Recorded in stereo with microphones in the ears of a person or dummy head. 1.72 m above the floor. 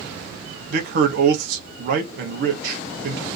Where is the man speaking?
55° right (ahead or behind), 0.8 m.